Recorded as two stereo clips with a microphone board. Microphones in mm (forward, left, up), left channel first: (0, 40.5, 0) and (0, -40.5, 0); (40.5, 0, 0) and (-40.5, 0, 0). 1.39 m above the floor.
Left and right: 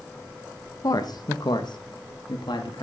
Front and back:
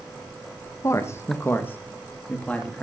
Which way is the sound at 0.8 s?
50° left.